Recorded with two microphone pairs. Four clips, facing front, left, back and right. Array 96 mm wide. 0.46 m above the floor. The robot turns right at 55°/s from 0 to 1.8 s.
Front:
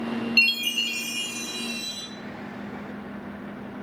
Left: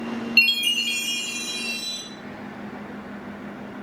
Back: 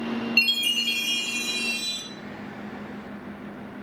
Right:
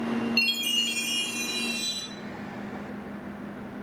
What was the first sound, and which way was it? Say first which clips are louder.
A chime: left 4 dB, even; 110° left.